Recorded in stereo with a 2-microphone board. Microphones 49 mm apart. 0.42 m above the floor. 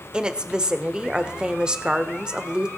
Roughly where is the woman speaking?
Centre.